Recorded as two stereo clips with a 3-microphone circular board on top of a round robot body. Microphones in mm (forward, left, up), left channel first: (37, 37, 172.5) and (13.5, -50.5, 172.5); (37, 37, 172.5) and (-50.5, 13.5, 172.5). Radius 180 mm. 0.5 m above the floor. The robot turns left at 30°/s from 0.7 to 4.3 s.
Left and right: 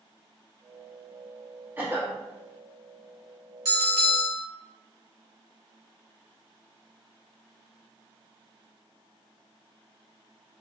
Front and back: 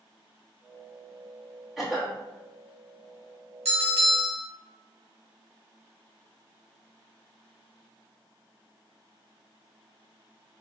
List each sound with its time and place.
1.8 s a cough: 75° right, 1.3 m; by 2.2 s 90° right, 1.3 m
3.6 s a bell: 155° right, 2.0 m; by 4.5 s 175° right, 2.0 m